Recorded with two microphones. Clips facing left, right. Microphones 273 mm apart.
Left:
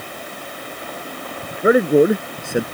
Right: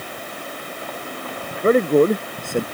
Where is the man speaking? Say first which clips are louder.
Left 2 dB; 10° left (ahead or behind).